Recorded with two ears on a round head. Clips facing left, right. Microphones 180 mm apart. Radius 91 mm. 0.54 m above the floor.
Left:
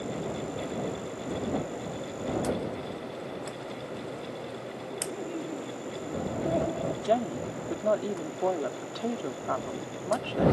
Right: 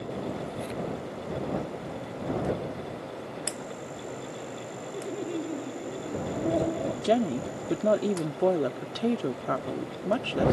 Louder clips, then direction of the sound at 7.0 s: Right 3 dB; 30° right (ahead or behind).